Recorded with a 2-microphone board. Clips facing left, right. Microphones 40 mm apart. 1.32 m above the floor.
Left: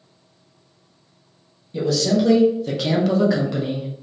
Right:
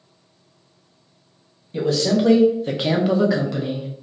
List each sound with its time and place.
1.7 s a man speaking: 40° right (ahead or behind), 1.2 m; by 3.9 s 20° left (ahead or behind), 0.7 m